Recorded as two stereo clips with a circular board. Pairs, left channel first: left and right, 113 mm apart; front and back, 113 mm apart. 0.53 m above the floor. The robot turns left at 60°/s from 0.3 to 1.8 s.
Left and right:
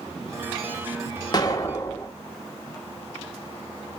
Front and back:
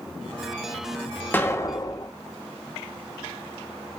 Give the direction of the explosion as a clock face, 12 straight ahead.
10 o'clock.